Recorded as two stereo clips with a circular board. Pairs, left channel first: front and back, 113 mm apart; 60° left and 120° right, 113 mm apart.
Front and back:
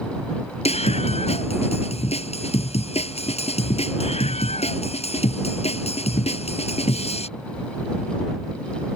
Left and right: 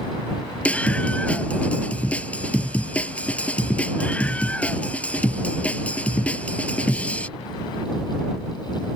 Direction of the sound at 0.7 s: 20° right.